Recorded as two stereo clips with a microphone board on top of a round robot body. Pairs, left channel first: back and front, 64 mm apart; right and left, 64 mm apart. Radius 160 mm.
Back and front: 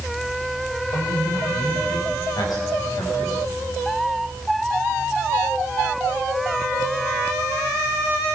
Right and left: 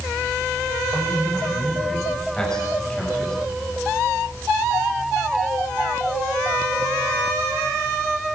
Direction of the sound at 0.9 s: 170° right.